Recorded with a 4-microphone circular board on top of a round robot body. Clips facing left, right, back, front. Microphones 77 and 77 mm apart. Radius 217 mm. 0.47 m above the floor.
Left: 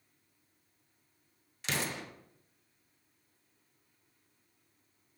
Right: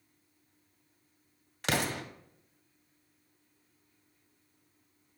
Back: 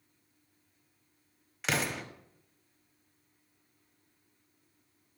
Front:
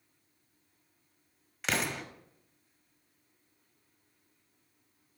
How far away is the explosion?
About 1.4 m.